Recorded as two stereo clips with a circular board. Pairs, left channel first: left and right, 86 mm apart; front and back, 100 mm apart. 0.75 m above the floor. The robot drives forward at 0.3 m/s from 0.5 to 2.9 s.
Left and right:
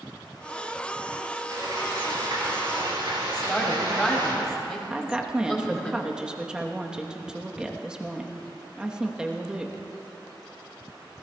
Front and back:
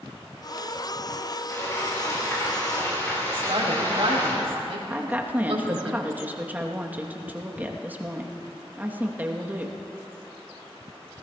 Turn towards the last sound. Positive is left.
turn(degrees=-150)